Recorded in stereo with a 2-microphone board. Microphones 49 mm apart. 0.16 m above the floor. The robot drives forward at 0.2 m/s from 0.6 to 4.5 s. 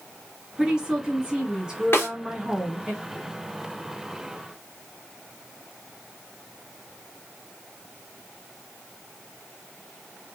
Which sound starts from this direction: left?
A snare drum, at 1.9 s.